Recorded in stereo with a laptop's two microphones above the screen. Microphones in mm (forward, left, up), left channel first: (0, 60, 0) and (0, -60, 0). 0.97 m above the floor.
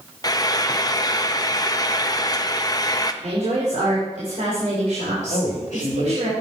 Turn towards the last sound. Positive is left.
turn(degrees=85)